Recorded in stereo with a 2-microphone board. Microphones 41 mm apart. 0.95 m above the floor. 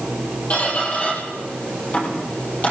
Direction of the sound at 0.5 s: 40° left (ahead or behind).